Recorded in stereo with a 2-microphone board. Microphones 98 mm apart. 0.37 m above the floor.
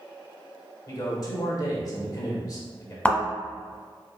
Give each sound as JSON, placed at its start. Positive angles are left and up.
{"t": 0.9, "sound": "a man speaking", "side_deg": 35, "distance_m": 1.1}
{"t": 3.0, "sound": "a thud", "side_deg": 10, "distance_m": 0.8}